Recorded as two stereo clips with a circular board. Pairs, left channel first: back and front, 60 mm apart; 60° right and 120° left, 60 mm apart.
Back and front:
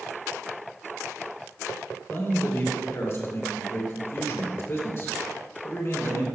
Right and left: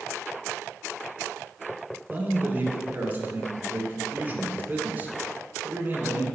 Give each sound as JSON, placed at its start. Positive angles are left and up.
{"t": 2.1, "sound": "a man speaking", "azimuth_deg": 165, "distance_m": 2.0}